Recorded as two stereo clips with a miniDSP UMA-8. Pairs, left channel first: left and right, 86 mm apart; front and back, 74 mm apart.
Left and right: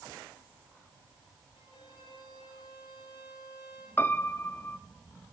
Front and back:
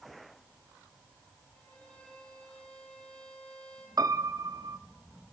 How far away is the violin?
About 9 m.